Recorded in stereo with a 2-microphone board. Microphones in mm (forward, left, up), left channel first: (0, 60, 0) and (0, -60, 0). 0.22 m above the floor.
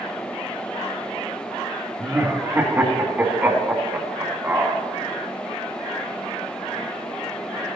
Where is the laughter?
15° right (ahead or behind), 2.0 m.